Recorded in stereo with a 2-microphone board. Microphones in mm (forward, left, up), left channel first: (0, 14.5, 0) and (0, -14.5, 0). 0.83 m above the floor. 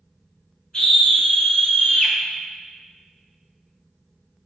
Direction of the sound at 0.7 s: 30° left (ahead or behind).